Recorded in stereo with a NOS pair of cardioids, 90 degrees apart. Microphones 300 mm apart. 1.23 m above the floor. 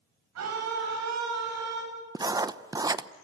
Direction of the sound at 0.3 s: 60° right.